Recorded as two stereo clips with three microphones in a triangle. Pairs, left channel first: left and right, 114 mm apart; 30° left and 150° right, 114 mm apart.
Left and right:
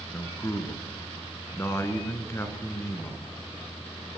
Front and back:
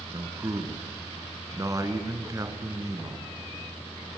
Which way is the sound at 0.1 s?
155° left.